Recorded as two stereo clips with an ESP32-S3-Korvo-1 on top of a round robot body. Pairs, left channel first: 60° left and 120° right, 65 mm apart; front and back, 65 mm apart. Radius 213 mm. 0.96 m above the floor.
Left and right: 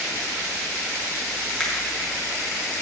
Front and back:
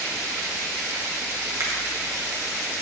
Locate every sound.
1.6 s a finger snap: 145° left, 2 m